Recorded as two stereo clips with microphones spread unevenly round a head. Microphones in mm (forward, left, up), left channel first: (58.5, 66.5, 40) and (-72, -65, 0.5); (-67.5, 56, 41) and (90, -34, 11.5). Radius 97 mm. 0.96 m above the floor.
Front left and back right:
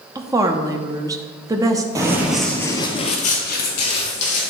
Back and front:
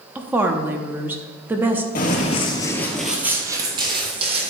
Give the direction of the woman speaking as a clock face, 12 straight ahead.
3 o'clock.